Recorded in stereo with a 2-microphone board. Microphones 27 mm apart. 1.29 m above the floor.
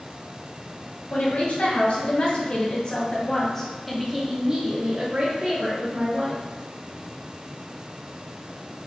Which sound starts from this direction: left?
A woman speaking, at 1.1 s.